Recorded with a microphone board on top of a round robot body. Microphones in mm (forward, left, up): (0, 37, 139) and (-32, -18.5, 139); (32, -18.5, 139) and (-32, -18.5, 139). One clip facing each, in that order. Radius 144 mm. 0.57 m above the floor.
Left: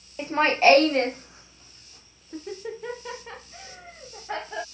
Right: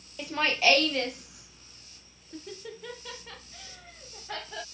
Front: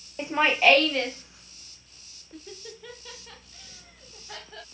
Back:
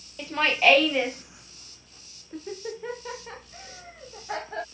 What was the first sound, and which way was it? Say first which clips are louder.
Laughter: left 7 dB, front 1 dB; 35° left.